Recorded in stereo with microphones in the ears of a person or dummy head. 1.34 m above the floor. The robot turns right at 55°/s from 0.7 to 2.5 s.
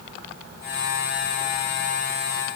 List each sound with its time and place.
Only background noise.